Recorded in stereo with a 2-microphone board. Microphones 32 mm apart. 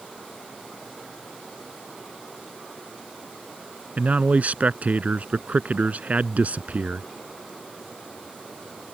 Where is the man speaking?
55° right (ahead or behind).